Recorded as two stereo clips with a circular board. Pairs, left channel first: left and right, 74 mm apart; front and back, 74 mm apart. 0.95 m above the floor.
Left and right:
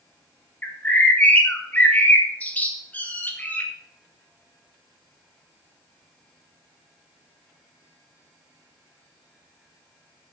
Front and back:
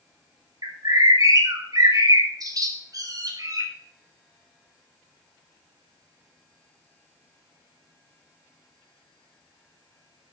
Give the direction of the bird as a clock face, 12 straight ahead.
7 o'clock.